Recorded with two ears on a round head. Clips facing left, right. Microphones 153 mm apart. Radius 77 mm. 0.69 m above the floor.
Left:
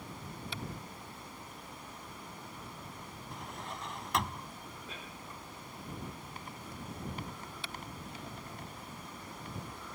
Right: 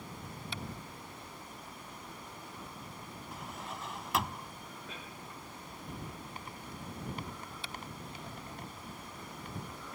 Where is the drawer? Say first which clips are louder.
Even; centre (ahead or behind).